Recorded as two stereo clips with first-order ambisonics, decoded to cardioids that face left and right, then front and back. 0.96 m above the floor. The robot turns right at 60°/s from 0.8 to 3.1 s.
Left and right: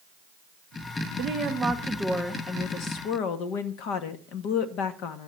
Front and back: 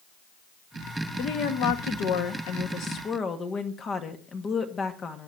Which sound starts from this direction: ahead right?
A woman speaking, at 1.2 s.